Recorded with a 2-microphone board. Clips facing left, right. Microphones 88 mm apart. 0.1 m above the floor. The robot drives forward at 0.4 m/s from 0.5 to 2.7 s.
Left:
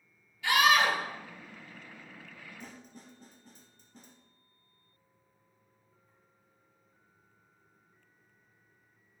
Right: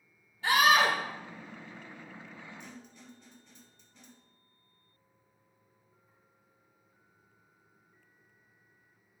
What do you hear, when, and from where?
0.4 s a scream: 35° right (ahead or behind), 1.9 m; by 1.0 s 40° right (ahead or behind), 1.8 m
2.6 s a snare drum: 45° left (ahead or behind), 1.5 m